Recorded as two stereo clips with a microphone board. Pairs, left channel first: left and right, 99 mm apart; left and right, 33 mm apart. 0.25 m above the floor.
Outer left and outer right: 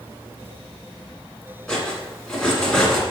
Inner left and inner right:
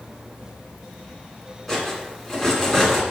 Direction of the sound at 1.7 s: 5° left (ahead or behind).